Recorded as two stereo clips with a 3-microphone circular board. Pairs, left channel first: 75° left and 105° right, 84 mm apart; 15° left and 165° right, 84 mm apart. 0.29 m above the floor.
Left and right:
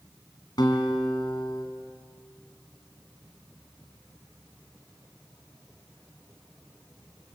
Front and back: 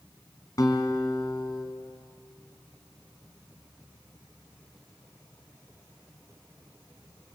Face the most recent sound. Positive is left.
turn(degrees=55)